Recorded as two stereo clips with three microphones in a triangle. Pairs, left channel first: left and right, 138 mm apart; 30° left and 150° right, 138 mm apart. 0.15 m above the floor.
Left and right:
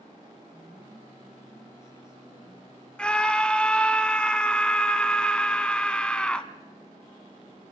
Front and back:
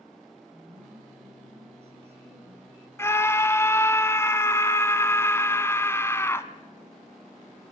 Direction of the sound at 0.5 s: 175° right.